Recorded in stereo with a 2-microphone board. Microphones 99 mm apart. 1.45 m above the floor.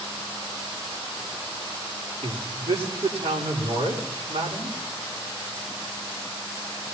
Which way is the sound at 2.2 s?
85° right.